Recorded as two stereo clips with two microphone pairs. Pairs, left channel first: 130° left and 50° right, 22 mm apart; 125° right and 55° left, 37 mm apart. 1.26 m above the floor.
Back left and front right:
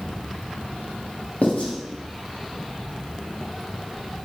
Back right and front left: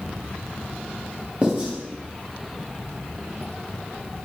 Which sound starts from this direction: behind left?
Writing, at 1.4 s.